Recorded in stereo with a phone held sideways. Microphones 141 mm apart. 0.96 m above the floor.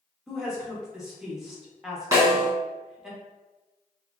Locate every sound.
0.3 s a woman speaking: 5° right (ahead or behind), 0.9 m
2.1 s a snare drum: 20° right (ahead or behind), 1.8 m